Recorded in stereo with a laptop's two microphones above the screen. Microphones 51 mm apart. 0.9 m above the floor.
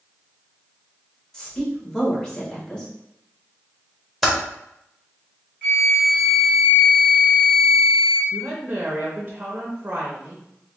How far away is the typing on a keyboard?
About 1.1 m.